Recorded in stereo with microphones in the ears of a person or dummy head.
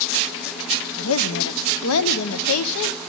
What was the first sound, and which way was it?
A woman speaking, 75° left (ahead or behind).